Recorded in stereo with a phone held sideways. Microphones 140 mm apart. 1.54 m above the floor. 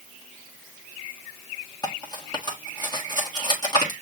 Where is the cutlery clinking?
30° left (ahead or behind), 1.4 m.